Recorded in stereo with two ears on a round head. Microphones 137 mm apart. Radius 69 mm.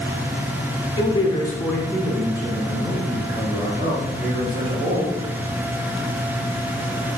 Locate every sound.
1.0 s a man speaking: 40° left (ahead or behind), 1.0 m; by 5.2 s 45° right (ahead or behind), 3 m